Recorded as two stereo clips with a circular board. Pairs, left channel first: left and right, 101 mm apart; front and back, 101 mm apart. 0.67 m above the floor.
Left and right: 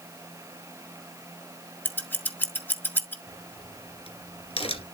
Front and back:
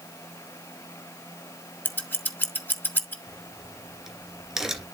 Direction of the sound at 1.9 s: 45° left.